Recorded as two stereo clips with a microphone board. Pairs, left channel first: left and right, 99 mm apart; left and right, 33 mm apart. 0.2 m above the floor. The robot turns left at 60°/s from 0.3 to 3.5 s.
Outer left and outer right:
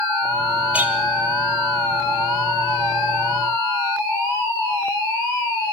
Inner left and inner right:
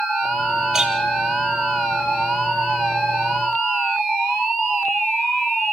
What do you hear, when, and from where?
0.7 s a clink: 15° right (ahead or behind), 3.5 m; by 0.9 s 25° right (ahead or behind), 3.5 m